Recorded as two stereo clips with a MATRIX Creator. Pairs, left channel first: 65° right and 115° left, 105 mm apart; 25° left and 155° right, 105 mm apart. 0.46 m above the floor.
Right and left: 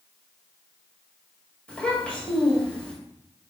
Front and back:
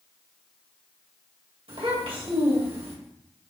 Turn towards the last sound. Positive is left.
turn(degrees=-145)